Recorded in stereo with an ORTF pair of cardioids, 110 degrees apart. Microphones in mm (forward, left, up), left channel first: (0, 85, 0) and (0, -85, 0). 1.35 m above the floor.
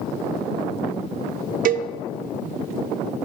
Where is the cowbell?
55° right, 0.6 m.